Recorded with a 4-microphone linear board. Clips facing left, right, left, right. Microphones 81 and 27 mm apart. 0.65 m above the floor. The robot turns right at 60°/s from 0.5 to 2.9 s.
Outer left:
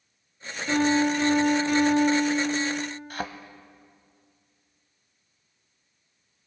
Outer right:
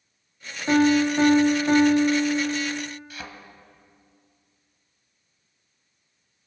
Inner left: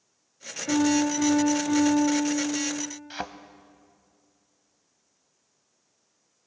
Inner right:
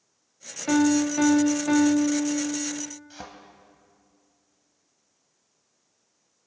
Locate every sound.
0.7 s a piano: 125° right, 1.7 m; by 2.9 s 5° left, 1.7 m
3.1 s a thud: 55° left (ahead or behind), 0.7 m